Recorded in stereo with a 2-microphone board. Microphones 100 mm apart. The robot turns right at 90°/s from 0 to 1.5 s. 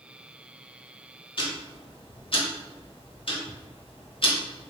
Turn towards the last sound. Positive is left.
turn(degrees=60)  # may be behind; listen again after turning